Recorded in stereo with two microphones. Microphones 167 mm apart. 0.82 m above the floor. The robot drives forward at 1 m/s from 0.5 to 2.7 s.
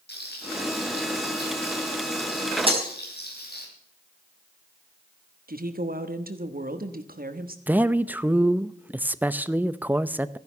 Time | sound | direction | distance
0.1 | frying | 80° left | 5.5 m
2.7 | breaking glass | 35° right (ahead or behind) | 3.5 m
5.5 | a woman speaking | 60° right (ahead or behind) | 1.3 m
7.7 | a man speaking | 10° right (ahead or behind) | 0.6 m